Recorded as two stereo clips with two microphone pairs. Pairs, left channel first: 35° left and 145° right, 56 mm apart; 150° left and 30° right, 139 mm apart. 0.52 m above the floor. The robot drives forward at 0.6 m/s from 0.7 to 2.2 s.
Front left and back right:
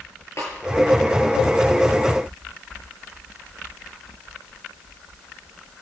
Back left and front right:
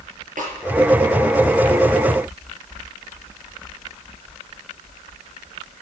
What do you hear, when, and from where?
0.4 s a snare drum: 5° right, 6.5 m